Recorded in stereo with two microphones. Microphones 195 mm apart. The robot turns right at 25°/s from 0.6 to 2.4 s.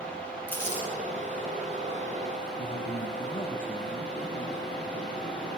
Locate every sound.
0.5 s crumpling: 10° left (ahead or behind), 6 m; by 0.8 s 15° left (ahead or behind), 6 m
2.6 s a man speaking: 55° left (ahead or behind), 1.9 m